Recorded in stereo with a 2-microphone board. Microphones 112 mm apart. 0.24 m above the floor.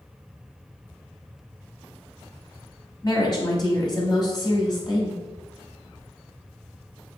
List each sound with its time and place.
3.0 s a woman speaking: 40° left (ahead or behind), 1.2 m